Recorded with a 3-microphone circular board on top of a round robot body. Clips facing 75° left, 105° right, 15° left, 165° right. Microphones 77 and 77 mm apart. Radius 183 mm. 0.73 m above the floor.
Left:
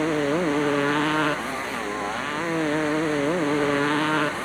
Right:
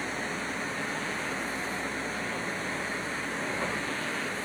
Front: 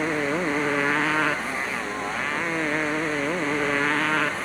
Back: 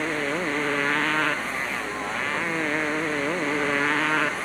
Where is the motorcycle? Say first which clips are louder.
Left 12 dB, front 2 dB; 95° left; by 4.5 s 105° left.